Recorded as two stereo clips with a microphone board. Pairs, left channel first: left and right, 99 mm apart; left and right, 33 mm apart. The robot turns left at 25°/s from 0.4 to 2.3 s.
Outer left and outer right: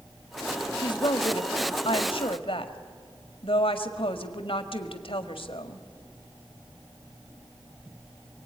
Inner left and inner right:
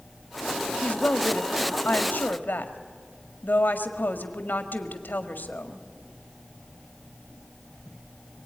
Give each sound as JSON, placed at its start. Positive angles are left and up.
{"t": 0.8, "sound": "a woman speaking", "azimuth_deg": 120, "distance_m": 1.8}